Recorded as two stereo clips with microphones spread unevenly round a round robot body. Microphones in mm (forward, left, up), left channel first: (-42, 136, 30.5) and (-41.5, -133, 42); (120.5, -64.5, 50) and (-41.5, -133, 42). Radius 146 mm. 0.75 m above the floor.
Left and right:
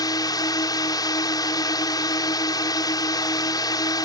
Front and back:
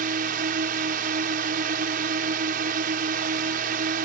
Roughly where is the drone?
Behind.